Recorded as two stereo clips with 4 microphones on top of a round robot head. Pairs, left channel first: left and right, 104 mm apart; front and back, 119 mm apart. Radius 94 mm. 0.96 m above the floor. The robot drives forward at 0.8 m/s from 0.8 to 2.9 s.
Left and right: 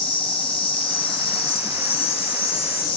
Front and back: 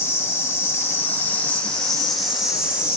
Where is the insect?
70° left, 3 m; by 3.0 s 105° left, 3 m.